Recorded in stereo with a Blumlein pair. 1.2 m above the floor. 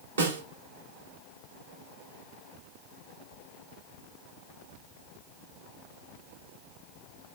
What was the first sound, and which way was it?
A snare drum, 70° right.